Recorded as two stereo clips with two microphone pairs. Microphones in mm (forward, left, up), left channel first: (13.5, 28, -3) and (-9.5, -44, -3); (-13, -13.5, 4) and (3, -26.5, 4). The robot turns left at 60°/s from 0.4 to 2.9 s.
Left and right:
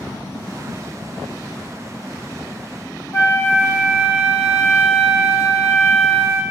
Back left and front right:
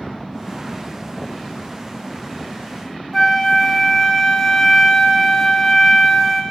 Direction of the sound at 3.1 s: 55° left.